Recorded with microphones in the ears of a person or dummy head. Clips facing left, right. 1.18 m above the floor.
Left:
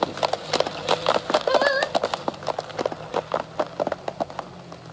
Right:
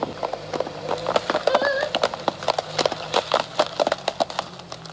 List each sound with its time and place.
1.5 s singing: 55° left (ahead or behind), 0.9 m